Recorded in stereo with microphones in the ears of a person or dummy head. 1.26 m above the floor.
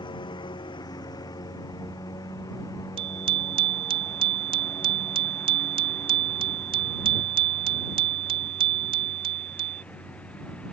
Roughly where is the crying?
I don't hear crying.